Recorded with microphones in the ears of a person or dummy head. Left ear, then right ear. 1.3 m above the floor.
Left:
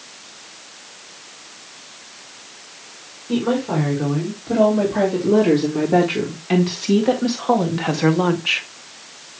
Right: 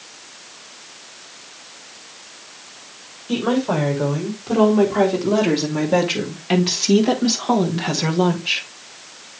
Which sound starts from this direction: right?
A woman speaking, at 3.3 s.